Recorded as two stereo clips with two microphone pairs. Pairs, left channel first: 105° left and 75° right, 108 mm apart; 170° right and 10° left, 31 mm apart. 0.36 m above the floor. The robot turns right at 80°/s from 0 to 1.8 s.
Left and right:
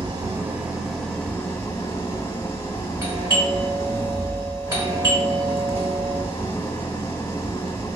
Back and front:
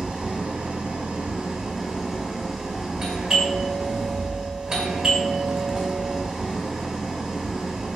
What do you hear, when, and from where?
0.0 s an engine running: 55° right, 0.9 m; by 8.0 s 90° left, 0.9 m
3.0 s a doorbell: 45° right, 1.7 m